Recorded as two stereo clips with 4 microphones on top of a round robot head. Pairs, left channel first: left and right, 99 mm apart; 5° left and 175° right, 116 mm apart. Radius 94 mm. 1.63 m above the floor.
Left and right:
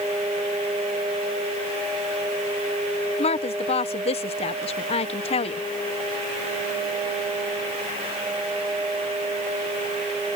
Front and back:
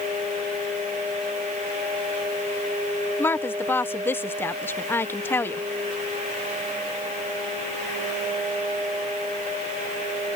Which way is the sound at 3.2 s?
75° left.